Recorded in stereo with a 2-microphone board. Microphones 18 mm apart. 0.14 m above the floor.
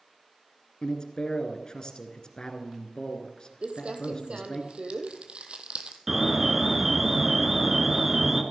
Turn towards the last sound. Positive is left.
turn(degrees=-20)  # may be behind; listen again after turning